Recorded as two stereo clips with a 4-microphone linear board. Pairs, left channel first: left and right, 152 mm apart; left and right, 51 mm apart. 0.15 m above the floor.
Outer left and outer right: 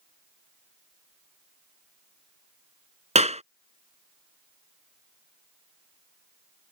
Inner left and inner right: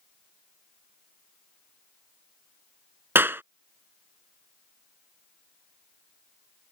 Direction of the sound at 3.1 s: 50° right (ahead or behind).